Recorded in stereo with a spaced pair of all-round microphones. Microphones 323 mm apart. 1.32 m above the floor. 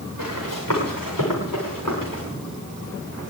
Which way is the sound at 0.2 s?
80° left.